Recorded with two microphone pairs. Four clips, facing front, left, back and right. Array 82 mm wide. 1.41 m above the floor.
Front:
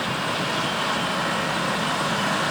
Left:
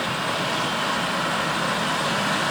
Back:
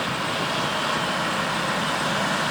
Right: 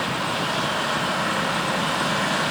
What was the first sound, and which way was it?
Only background noise.